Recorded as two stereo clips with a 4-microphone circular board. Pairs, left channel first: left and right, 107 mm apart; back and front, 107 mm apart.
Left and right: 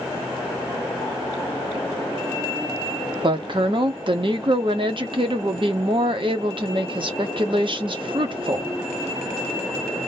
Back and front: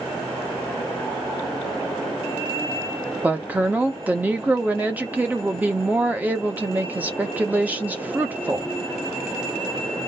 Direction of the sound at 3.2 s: 70° right.